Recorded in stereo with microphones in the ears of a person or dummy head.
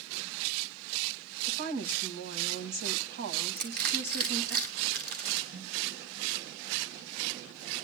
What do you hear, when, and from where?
1.5 s a woman speaking: 65° right (ahead or behind), 2 m
3.6 s crushing: 55° right (ahead or behind), 5 m
5.5 s a snare drum: 70° right (ahead or behind), 6.5 m